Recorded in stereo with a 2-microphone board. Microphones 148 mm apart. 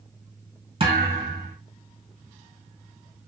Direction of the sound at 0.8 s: 40° right (ahead or behind).